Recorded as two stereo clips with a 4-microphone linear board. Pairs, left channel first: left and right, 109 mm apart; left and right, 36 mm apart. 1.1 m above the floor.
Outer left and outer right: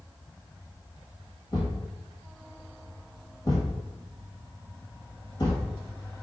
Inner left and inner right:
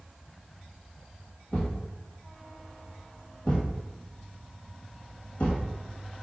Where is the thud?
40° left (ahead or behind), 1.9 m.